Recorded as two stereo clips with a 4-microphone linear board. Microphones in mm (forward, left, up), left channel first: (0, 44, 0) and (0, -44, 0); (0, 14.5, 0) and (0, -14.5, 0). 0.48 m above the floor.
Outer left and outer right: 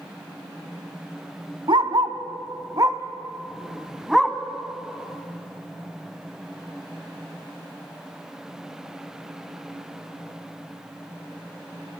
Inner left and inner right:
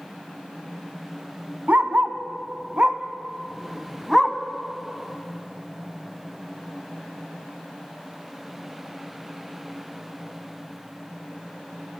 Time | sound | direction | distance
1.7 | a dog barking | 75° right (ahead or behind) | 1.4 m